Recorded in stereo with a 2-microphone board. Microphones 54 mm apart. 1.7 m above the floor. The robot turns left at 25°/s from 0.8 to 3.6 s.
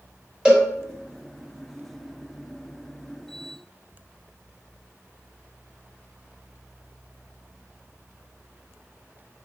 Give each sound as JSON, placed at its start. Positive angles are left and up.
{"t": 0.5, "sound": "a cowbell", "side_deg": -15, "distance_m": 1.6}